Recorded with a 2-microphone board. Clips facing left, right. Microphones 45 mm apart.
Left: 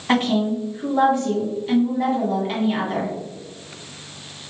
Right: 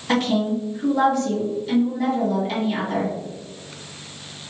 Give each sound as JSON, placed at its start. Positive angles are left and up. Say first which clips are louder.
{"t": 0.1, "sound": "a woman speaking", "louder": "left 1 dB", "side_deg": 25, "distance_m": 1.4}